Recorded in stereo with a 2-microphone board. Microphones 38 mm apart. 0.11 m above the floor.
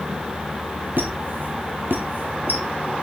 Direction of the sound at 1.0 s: 60° right (ahead or behind).